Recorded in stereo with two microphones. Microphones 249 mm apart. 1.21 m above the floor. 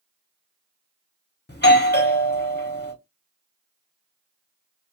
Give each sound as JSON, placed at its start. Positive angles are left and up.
{"t": 1.5, "sound": "a doorbell", "side_deg": 45, "distance_m": 0.8}